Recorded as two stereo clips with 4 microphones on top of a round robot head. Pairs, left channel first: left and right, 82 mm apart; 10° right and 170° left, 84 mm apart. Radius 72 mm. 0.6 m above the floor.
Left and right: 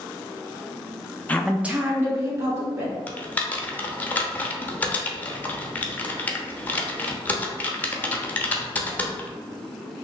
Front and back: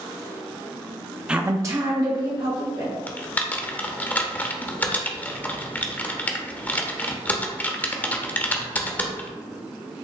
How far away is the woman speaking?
About 0.6 m.